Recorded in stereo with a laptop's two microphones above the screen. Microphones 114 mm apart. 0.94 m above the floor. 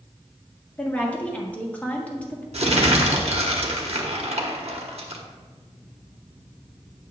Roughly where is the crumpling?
Right.